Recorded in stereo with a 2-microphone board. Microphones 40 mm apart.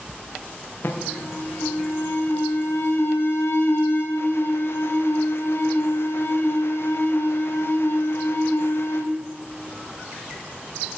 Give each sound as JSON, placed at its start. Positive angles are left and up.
{"t": 0.8, "sound": "an alarm", "side_deg": 70, "distance_m": 1.6}